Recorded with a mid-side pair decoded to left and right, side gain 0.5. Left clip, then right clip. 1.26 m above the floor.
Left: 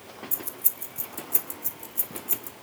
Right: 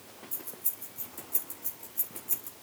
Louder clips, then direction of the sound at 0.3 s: Left 7 dB; 60° left.